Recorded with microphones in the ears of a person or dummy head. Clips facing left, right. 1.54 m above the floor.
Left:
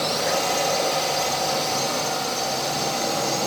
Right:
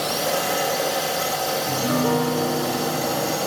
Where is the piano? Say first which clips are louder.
Right 5 dB; 80° right.